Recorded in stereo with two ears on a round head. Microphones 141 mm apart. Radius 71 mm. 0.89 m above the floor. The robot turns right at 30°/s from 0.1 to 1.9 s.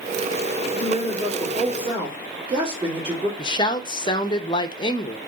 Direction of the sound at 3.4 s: 30° left (ahead or behind).